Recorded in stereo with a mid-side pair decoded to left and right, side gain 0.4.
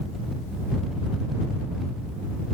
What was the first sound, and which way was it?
Only background noise.